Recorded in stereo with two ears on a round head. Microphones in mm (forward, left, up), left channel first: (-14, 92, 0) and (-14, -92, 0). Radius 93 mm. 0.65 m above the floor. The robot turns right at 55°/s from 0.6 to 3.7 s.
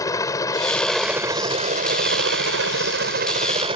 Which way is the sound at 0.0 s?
160° left.